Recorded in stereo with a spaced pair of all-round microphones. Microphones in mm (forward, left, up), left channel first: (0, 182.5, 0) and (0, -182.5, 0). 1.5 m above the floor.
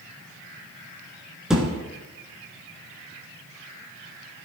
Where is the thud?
Centre (ahead or behind), 3 m.